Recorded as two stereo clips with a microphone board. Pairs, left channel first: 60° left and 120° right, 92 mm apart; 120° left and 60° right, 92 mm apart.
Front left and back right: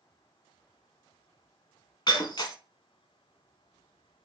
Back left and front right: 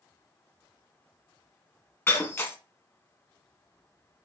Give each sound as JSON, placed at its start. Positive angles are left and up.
{"t": 2.1, "sound": "breaking glass", "azimuth_deg": 65, "distance_m": 1.2}